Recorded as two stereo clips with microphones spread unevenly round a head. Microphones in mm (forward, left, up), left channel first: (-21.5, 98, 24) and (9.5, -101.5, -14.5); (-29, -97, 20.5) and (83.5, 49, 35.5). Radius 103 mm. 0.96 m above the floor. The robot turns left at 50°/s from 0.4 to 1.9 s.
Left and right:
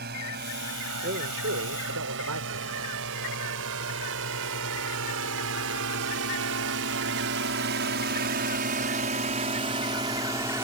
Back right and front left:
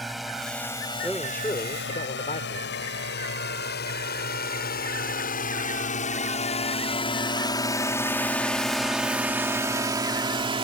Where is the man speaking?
30° right; by 2.8 s 75° right.